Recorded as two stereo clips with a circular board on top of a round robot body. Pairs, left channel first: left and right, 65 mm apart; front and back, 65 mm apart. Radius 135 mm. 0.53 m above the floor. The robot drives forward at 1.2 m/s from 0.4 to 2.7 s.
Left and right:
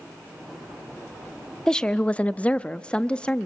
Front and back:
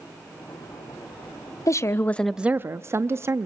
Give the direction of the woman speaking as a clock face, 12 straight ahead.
12 o'clock.